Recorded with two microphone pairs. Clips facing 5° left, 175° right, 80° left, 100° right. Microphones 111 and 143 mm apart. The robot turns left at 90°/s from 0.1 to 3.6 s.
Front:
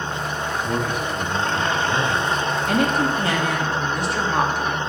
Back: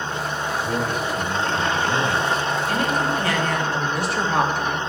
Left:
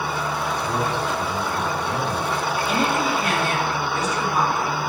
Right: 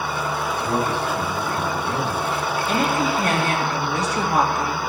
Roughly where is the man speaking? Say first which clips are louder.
Even, right 3 dB; ahead right.